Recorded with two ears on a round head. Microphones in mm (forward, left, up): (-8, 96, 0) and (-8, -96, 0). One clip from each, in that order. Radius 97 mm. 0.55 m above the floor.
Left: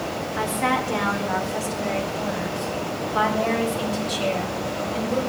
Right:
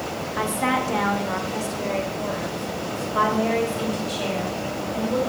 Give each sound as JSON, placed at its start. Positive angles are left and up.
{"t": 0.4, "sound": "a woman speaking", "side_deg": -10, "distance_m": 1.8}